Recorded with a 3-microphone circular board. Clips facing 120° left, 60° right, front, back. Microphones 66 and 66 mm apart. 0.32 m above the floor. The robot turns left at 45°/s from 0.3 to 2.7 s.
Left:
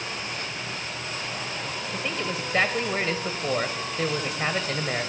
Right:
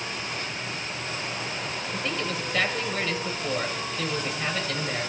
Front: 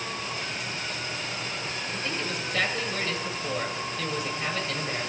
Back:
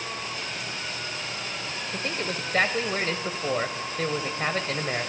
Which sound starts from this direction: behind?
A man speaking, at 1.9 s.